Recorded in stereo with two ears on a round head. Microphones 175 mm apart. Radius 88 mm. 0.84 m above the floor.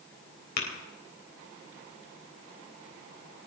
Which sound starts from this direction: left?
Tapping, at 0.6 s.